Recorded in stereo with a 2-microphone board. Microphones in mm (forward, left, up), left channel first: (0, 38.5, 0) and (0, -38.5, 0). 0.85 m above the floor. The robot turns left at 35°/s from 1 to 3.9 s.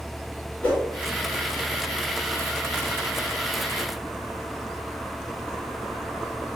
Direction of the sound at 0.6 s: 20° left (ahead or behind).